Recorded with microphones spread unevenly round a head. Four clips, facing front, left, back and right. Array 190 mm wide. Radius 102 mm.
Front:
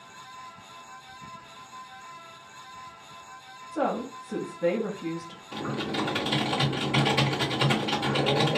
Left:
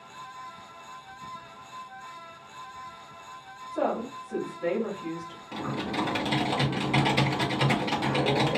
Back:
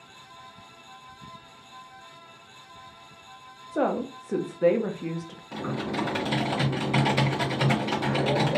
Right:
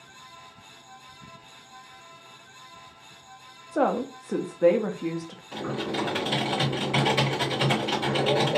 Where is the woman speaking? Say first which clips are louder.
Right 4 dB, back 2 dB; 130° right, 0.8 m.